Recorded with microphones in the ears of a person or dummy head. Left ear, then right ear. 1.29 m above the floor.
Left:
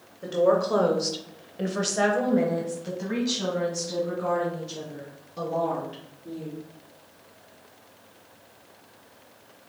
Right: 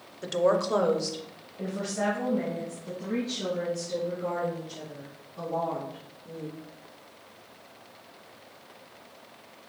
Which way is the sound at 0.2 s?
30° right (ahead or behind).